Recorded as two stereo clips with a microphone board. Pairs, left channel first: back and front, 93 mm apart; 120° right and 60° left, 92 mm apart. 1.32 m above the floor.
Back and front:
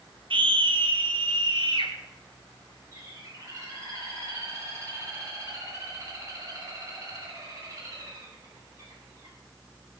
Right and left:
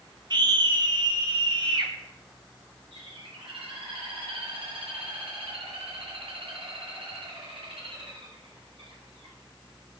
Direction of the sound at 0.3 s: 25° left.